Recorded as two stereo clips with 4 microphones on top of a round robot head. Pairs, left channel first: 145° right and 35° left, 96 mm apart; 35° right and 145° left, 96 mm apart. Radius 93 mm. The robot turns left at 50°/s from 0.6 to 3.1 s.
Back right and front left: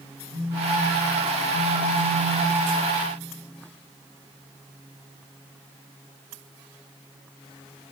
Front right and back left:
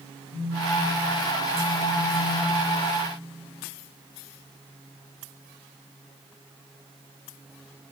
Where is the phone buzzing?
80° left, 3.5 m; by 2.6 s 15° right, 3.5 m.